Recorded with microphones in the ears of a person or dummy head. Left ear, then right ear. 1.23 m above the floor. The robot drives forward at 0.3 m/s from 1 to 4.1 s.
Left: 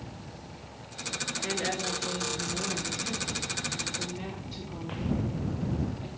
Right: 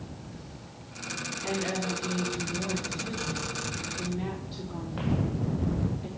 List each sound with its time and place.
1.4 s a woman speaking: 35° left (ahead or behind), 1.9 m; by 6.1 s 25° left (ahead or behind), 2.5 m